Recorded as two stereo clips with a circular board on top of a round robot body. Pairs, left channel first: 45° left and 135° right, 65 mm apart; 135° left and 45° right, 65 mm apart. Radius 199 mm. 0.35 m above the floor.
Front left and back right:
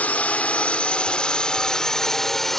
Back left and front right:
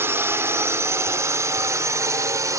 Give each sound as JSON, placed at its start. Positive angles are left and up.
{"t": 0.0, "sound": "a drone", "azimuth_deg": -15}